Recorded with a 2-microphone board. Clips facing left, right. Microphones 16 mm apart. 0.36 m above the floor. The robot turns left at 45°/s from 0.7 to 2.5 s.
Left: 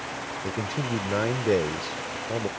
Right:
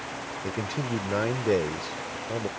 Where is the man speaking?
5° right (ahead or behind); by 2.5 s 15° left (ahead or behind).